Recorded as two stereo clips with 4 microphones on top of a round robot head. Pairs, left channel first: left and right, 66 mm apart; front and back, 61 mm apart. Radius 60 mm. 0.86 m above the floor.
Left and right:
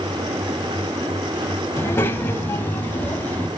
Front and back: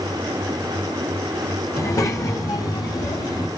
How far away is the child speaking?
About 3 m.